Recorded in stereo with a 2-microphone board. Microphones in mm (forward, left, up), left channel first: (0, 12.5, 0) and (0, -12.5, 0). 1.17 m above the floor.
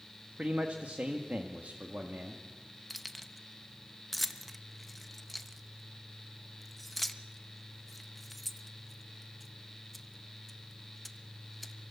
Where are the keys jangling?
5° left (ahead or behind), 1.0 m.